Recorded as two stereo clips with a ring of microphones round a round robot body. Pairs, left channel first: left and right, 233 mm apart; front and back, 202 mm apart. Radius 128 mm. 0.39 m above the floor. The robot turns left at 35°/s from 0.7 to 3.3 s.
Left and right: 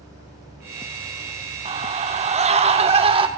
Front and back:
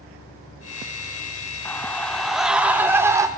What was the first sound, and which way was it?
A scream, 70° right.